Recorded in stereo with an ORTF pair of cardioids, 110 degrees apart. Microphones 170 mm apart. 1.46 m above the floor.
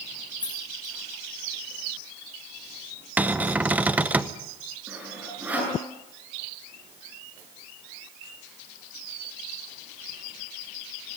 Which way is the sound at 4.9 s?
10° right.